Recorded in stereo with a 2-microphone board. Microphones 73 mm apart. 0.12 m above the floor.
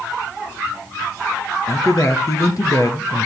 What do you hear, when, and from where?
1.7 s a man speaking: 50° left (ahead or behind), 2.5 m